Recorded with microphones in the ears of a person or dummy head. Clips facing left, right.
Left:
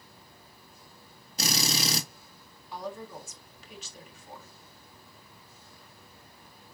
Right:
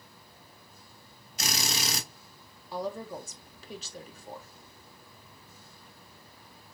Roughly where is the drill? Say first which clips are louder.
Left 4 dB; left.